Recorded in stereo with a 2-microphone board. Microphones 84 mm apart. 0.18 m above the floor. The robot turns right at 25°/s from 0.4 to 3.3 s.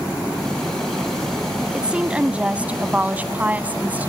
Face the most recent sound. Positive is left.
turn(degrees=-20)  # may be behind; listen again after turning